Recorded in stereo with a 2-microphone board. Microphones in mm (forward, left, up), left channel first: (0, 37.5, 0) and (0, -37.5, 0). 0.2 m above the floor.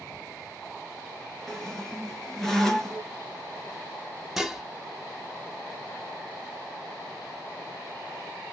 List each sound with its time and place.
1.5 s a squeak: 5° left (ahead or behind), 2 m
4.4 s dishes clattering: 5° right (ahead or behind), 0.9 m